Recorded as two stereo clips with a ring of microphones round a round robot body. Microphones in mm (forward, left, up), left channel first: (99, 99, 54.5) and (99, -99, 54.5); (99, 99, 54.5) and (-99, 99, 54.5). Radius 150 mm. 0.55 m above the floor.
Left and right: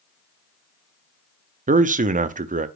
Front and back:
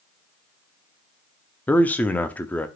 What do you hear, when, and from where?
1.7 s a man speaking: 80° right, 0.7 m